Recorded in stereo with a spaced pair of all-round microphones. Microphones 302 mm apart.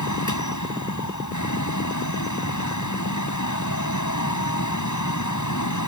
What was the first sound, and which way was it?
A fan, 75° left (ahead or behind).